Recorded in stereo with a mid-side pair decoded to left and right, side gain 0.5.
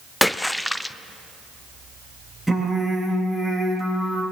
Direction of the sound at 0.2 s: 10° left.